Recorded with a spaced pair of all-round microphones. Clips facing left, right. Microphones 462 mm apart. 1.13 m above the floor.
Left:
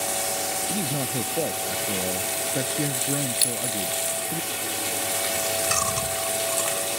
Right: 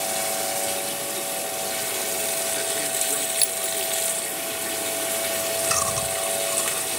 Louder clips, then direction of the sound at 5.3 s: Right 1 dB; centre (ahead or behind).